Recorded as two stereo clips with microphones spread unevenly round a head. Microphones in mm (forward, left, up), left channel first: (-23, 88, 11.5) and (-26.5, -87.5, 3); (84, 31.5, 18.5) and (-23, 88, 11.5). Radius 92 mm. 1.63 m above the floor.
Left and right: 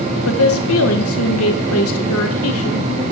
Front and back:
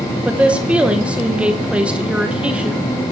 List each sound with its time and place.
0.2 s a woman speaking: 70° left, 1.9 m